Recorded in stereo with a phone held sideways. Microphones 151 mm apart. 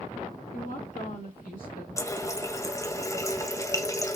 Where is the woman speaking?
60° left (ahead or behind), 1.6 m; by 1.9 s 75° left (ahead or behind), 2.5 m.